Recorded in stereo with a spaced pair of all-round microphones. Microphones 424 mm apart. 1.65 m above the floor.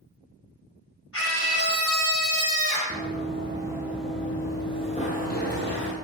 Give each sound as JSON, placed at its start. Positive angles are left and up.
{"t": 1.1, "sound": "a scream", "side_deg": 30, "distance_m": 2.5}
{"t": 2.9, "sound": "running footsteps", "side_deg": -20, "distance_m": 1.9}